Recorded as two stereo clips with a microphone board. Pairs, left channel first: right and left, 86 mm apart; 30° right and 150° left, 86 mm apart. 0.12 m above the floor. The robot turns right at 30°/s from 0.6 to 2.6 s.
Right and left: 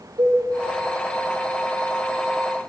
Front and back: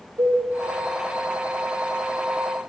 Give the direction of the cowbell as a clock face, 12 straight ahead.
8 o'clock.